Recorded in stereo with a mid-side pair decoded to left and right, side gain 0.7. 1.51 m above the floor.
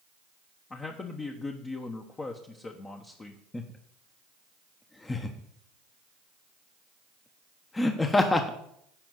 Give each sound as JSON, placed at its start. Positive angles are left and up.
{"t": 0.7, "sound": "a man speaking", "azimuth_deg": 25, "distance_m": 1.1}
{"t": 3.5, "sound": "laughter", "azimuth_deg": 15, "distance_m": 1.0}